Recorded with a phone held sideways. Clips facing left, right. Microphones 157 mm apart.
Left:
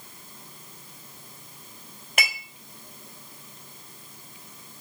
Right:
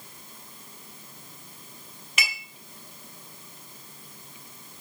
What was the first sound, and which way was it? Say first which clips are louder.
Dishes clattering: left 4 dB; 60° left (ahead or behind).